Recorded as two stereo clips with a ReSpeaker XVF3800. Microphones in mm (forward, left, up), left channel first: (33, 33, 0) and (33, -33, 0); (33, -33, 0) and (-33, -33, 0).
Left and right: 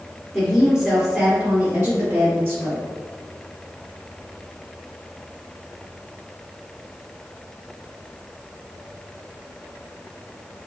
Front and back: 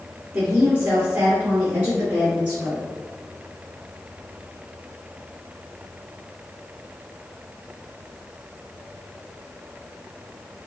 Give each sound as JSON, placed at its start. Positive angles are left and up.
{"t": 0.3, "sound": "a woman speaking", "azimuth_deg": -170, "distance_m": 1.7}